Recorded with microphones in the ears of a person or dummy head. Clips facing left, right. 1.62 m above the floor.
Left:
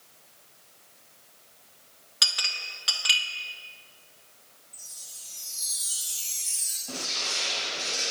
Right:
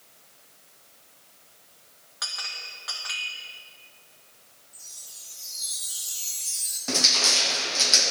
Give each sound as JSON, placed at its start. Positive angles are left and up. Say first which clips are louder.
{"t": 2.2, "sound": "a clink", "louder": "left 1 dB", "side_deg": 35, "distance_m": 0.9}
{"t": 4.7, "sound": "a chime", "louder": "even", "side_deg": 25, "distance_m": 1.2}
{"t": 6.9, "sound": "crushing", "louder": "right 8 dB", "side_deg": -70, "distance_m": 0.8}